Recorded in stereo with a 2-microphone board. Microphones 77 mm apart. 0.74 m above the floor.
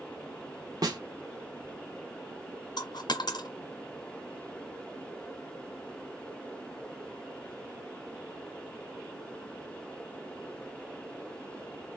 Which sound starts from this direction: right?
A snare drum, at 0.8 s.